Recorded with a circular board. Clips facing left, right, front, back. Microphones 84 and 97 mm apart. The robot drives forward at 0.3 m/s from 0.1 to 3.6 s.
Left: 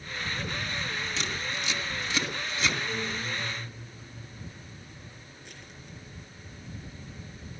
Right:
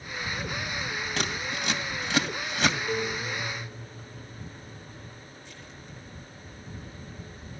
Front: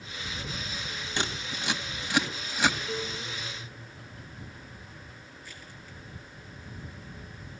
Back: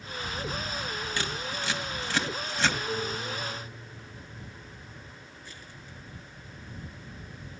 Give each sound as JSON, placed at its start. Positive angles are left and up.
{"t": 1.2, "sound": "scissors", "azimuth_deg": -65, "distance_m": 2.0}
{"t": 2.9, "sound": "a guitar", "azimuth_deg": -115, "distance_m": 3.5}
{"t": 5.4, "sound": "crushing", "azimuth_deg": 115, "distance_m": 9.0}